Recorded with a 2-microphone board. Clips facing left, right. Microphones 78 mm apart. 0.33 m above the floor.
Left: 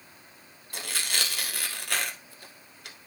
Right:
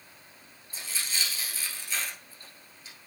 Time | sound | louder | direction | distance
0.7 | tearing paper | left 4 dB | 75° left (ahead or behind) | 0.9 m